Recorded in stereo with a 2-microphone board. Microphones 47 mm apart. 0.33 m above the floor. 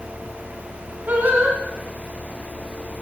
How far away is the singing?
About 2.5 m.